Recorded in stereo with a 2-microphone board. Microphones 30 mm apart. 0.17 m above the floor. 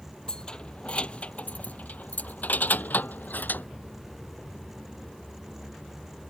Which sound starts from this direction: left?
Keys jangling, at 0.3 s.